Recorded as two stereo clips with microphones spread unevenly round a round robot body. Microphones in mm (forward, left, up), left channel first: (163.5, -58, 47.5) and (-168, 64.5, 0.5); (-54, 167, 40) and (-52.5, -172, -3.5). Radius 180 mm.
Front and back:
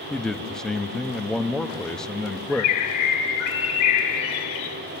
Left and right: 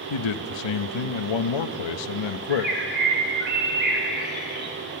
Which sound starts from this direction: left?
A man speaking, at 0.1 s.